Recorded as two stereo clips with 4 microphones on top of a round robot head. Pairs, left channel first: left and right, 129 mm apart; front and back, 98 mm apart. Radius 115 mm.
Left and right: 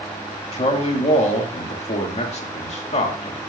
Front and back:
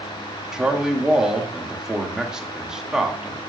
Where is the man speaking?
100° left, 2 m.